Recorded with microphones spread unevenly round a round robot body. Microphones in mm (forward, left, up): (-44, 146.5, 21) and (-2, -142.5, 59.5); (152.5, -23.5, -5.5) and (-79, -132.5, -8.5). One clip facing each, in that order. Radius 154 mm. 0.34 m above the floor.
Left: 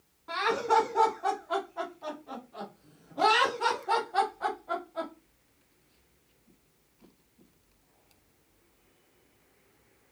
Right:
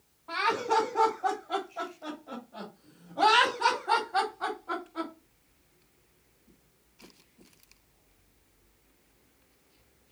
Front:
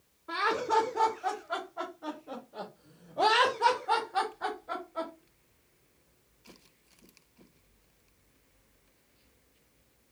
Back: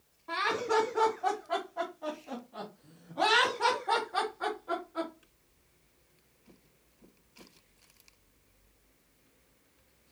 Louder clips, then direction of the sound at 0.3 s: Left 2 dB, even; 145° left.